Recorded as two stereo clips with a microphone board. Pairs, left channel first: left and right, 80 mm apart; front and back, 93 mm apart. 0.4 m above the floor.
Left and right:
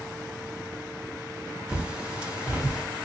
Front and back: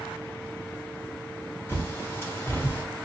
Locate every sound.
1.7 s a bird: 30° right, 1.1 m